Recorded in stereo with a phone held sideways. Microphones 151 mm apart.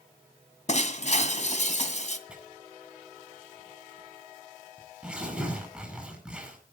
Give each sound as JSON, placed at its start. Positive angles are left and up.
{"t": 0.7, "sound": "breaking glass", "side_deg": 50, "distance_m": 1.8}
{"t": 2.3, "sound": "tearing paper", "side_deg": -5, "distance_m": 7.5}